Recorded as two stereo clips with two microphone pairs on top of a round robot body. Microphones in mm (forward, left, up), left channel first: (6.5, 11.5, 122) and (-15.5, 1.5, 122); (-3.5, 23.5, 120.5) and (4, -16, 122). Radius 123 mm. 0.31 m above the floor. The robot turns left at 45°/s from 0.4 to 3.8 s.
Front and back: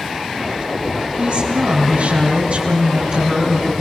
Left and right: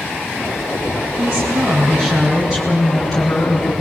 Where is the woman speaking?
95° right, 4 m; by 3.8 s 150° left, 4 m.